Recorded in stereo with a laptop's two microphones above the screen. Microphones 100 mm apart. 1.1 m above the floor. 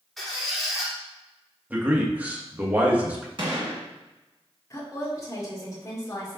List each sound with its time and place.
0.2 s a squeak: centre (ahead or behind), 1.3 m
1.7 s a man speaking: 15° right (ahead or behind), 1.2 m
3.4 s a gunshot: 50° right (ahead or behind), 1.6 m
4.7 s a woman speaking: 30° left (ahead or behind), 2 m